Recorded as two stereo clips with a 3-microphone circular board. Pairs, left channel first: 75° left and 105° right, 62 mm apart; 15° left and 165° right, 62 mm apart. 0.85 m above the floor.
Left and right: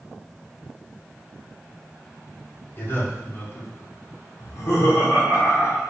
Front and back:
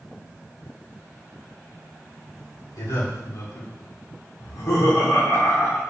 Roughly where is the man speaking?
Ahead left.